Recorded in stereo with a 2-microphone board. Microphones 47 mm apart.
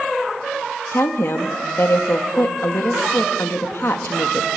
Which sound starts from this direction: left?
A woman speaking, at 0.9 s.